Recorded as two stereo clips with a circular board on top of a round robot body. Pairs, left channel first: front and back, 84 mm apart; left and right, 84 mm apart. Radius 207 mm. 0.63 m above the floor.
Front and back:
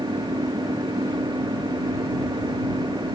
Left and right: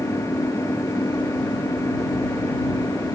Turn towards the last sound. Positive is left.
turn(degrees=145)